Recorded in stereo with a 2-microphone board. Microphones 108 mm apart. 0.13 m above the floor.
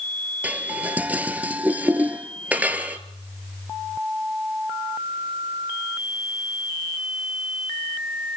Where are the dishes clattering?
15° right (ahead or behind), 1.6 m.